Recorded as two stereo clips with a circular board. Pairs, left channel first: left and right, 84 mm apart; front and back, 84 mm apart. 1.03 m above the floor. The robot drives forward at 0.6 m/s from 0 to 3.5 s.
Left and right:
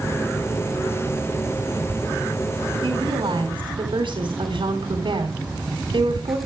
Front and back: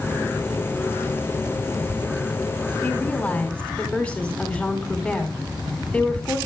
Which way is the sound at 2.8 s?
70° right.